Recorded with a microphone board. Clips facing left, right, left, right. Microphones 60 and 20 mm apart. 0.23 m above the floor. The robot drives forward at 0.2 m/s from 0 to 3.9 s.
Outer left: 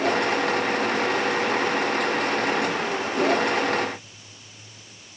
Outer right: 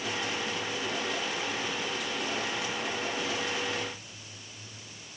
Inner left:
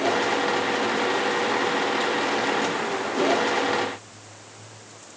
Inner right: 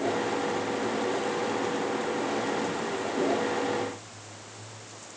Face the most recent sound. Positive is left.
No sound to turn to.